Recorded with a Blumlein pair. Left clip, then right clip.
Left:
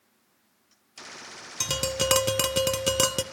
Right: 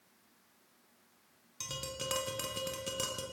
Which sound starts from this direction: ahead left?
Tapping, at 1.6 s.